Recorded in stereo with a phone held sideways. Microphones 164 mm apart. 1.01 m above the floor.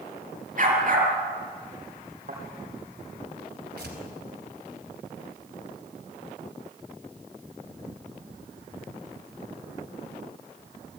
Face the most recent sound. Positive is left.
turn(degrees=-90)